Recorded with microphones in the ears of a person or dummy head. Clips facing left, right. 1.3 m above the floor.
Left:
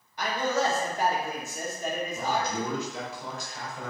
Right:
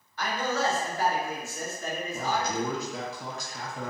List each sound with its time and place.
0.2 s a man speaking: 20° left (ahead or behind), 0.7 m
2.1 s a man speaking: 35° right (ahead or behind), 0.8 m